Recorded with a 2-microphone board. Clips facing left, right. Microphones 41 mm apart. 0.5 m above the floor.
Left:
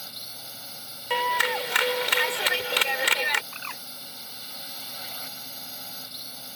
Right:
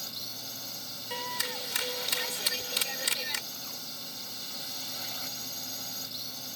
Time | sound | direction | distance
0.0 | a drone | 15° left (ahead or behind) | ?
1.1 | a clap | 55° left (ahead or behind) | ?
3.5 | a bird | 75° left (ahead or behind) | ?